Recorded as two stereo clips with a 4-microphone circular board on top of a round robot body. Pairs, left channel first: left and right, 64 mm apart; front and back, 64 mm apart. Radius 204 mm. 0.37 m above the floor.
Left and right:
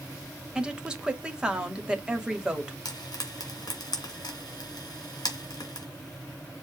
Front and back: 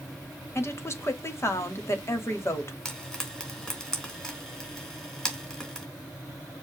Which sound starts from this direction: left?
Frying, at 2.9 s.